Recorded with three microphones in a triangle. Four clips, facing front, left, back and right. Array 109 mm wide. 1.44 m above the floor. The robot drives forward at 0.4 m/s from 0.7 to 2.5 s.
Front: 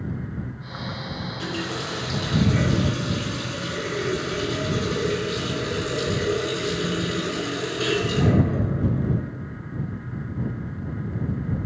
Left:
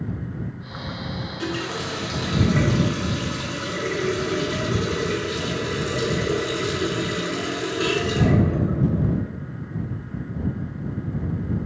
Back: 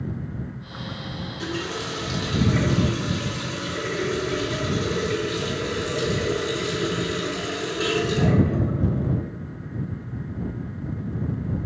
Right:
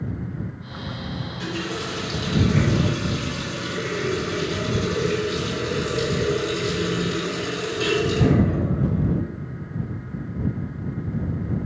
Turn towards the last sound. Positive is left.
turn(degrees=120)